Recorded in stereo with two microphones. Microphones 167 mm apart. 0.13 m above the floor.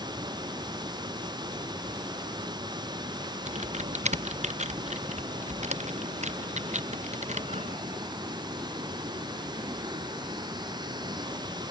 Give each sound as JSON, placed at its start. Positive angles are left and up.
{"t": 0.0, "sound": "running water", "side_deg": -25}
{"t": 3.5, "sound": "typing on a keyboard", "side_deg": -45}